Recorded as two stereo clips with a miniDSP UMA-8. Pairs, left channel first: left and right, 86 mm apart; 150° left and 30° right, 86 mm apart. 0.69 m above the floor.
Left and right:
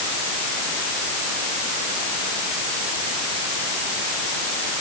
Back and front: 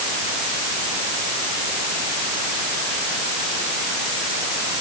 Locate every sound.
Only background noise.